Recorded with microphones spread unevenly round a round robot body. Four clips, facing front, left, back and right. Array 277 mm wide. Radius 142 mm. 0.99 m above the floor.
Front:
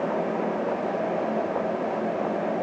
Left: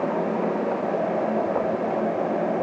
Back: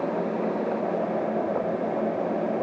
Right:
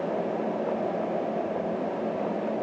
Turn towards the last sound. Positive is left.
No sound to turn to.